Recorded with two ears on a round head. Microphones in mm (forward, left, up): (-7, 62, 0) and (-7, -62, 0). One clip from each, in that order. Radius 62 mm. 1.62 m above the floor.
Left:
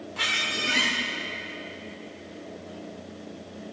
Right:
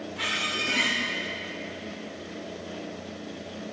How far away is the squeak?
About 0.8 m.